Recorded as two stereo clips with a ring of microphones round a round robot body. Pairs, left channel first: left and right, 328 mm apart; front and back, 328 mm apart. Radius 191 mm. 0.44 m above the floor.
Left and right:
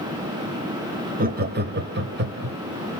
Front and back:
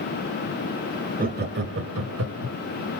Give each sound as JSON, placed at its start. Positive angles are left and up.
{"t": 1.2, "sound": "laughter", "azimuth_deg": -135, "distance_m": 0.9}